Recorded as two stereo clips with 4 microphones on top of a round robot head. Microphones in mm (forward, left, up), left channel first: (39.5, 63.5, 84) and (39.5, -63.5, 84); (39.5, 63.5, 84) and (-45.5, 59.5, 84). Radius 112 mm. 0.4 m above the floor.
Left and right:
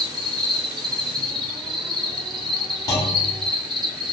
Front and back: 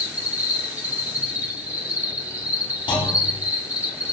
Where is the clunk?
25° left, 0.8 m.